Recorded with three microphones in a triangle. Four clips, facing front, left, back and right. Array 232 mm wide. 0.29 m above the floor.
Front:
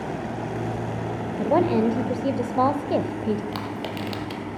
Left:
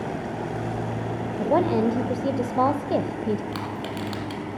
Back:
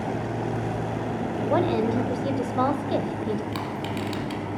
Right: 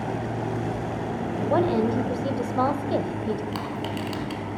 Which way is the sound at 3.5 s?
10° left.